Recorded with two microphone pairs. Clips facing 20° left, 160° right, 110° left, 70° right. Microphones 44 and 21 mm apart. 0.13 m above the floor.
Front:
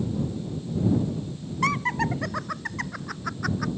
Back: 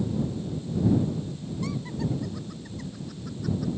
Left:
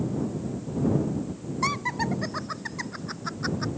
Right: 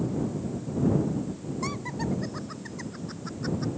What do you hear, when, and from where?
1.6 s laughter: 50° left